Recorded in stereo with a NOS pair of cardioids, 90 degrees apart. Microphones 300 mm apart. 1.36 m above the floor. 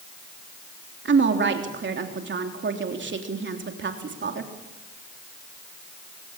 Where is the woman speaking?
40° right, 3.5 m.